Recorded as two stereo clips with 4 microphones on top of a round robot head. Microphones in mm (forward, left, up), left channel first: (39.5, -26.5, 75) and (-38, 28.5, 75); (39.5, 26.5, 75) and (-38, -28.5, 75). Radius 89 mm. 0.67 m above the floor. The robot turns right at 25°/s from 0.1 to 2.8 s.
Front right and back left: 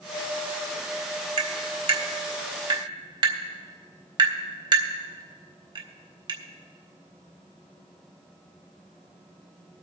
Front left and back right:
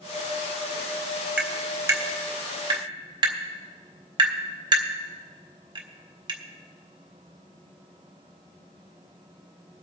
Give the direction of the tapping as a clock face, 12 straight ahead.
7 o'clock.